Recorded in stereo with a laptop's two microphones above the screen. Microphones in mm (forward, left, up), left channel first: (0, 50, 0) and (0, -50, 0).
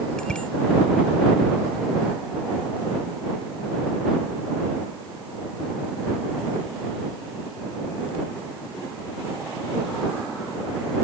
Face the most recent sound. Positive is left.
turn(degrees=10)  # may be behind; listen again after turning